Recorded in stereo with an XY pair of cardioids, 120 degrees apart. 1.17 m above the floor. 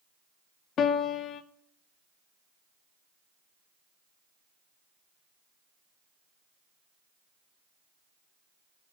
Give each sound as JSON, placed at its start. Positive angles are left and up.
{"t": 0.8, "sound": "a piano", "azimuth_deg": 55, "distance_m": 0.6}